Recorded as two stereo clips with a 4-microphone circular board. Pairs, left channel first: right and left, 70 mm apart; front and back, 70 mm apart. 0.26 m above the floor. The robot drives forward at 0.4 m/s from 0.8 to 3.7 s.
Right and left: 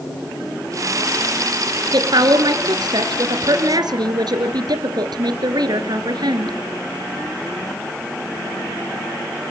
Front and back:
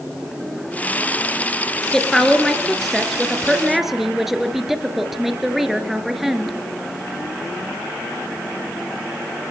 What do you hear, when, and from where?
1.9 s a woman speaking: 85° left, 3.5 m; by 6.5 s 95° left, 3.5 m